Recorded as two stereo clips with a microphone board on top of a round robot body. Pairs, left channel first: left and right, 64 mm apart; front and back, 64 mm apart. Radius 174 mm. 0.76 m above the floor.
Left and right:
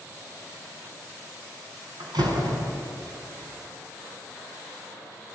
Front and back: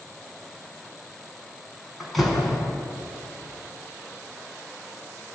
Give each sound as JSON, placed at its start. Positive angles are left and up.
{"t": 2.0, "sound": "a door slam", "azimuth_deg": -90, "distance_m": 5.5}